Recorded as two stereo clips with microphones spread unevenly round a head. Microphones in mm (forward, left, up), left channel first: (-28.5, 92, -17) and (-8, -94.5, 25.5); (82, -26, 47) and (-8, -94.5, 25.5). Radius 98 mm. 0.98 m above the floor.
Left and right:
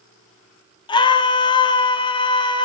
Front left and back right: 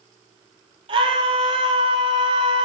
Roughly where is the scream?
Behind.